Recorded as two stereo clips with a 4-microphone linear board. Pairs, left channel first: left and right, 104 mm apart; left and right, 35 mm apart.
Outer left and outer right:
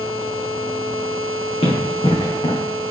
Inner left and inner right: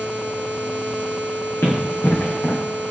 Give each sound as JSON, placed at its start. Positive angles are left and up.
{"t": 1.6, "sound": "running footsteps", "side_deg": 65, "distance_m": 3.0}